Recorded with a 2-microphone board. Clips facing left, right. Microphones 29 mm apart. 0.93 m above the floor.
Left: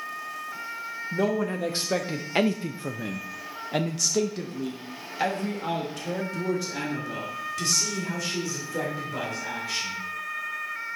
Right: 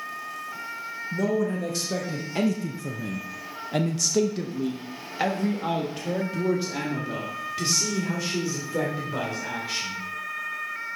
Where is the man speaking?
35° left (ahead or behind), 1.2 m; by 10.0 s 20° right (ahead or behind), 3.5 m.